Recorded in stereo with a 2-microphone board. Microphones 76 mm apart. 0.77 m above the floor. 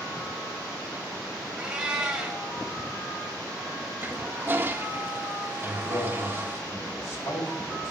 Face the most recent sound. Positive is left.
turn(degrees=35)  # may be behind; listen again after turning